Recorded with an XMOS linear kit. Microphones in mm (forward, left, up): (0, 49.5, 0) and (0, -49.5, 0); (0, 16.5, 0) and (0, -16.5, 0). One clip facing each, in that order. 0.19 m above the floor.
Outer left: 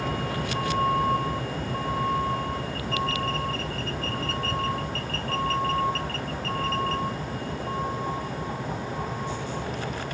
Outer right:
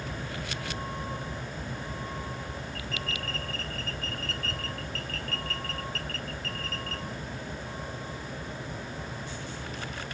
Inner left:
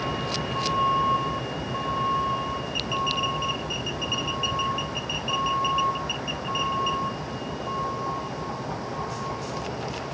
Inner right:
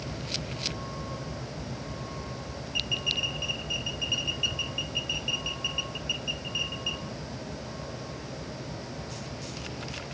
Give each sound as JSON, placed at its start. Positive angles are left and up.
{"t": 0.0, "sound": "a vehicle", "side_deg": 85}